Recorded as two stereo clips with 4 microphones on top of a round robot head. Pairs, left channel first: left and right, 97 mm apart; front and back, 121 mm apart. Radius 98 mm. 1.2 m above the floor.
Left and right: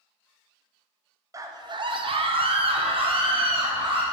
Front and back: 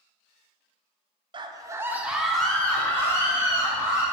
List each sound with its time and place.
1.3 s a scream: 140° right, 0.6 m; by 4.0 s 60° right, 1.6 m